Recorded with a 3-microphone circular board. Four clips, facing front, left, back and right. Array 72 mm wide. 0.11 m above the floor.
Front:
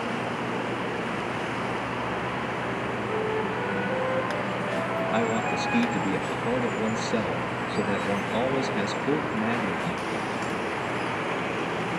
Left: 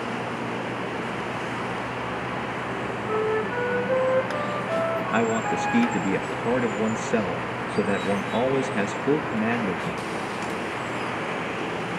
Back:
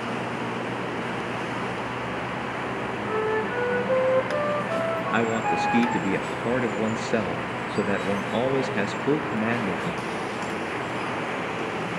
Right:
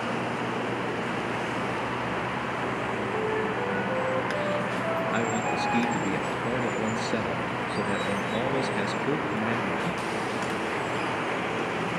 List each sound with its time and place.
3.1 s a flute: 160° left, 9.5 m
5.1 s a man speaking: 145° left, 2 m